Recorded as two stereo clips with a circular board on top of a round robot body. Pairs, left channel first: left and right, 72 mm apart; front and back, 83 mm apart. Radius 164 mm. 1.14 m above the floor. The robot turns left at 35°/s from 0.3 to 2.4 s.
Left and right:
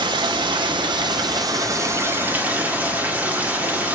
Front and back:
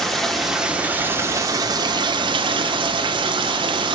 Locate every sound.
0.0 s running water: 85° right, 1.5 m; by 4.0 s 160° right, 1.5 m